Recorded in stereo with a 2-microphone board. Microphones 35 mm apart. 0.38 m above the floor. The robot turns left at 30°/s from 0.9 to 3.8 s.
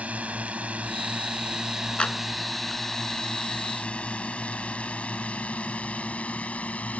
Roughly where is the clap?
Left.